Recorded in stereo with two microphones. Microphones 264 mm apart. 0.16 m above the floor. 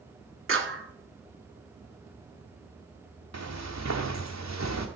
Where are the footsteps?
85° right, 1.5 m; by 4.9 s 80° right, 2.5 m.